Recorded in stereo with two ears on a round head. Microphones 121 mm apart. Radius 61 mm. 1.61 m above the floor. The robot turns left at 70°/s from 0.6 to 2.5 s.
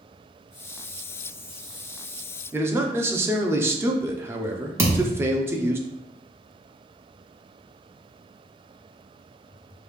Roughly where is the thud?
Centre.